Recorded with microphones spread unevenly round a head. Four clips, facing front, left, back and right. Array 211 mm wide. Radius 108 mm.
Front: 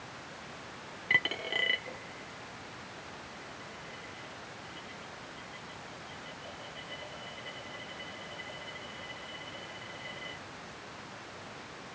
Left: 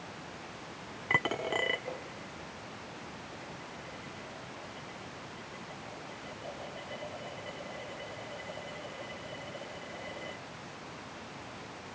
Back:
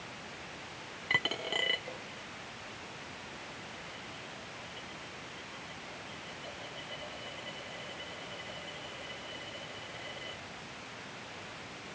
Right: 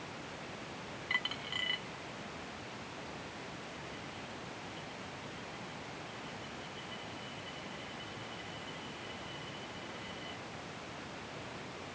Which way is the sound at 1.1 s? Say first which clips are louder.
Left 11 dB, front 1 dB; 90° left.